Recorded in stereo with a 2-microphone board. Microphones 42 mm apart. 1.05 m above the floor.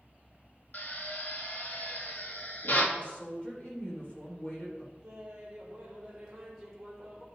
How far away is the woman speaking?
About 3 m.